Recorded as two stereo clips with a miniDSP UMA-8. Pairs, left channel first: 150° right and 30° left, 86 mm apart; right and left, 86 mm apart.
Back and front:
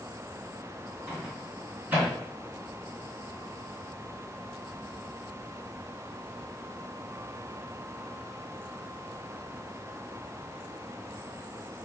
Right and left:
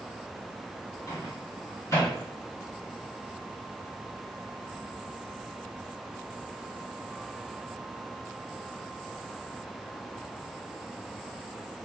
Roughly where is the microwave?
Ahead right.